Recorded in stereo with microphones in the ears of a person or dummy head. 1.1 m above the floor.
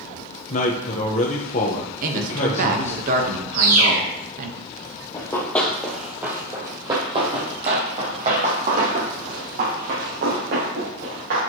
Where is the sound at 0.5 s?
35° left (ahead or behind), 0.9 m.